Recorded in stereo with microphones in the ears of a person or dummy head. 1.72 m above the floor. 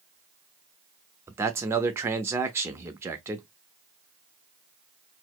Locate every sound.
1.3 s a man speaking: 15° right (ahead or behind), 0.6 m